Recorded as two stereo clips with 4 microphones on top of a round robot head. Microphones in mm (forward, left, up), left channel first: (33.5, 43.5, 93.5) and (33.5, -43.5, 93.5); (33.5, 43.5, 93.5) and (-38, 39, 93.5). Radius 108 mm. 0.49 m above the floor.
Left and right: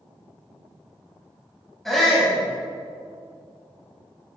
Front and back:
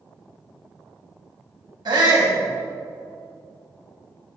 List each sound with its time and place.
1.9 s a shout: 175° left, 3 m